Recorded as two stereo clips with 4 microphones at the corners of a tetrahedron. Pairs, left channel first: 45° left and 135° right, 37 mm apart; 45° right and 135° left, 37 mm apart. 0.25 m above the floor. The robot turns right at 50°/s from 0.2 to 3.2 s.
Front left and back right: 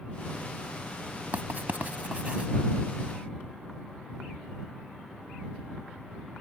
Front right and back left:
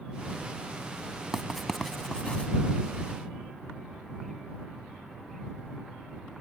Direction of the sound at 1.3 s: 145° right.